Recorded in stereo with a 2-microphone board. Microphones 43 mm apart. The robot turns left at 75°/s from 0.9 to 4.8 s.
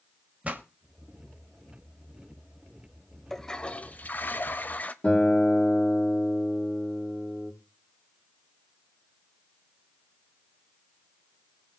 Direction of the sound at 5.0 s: 35° left (ahead or behind).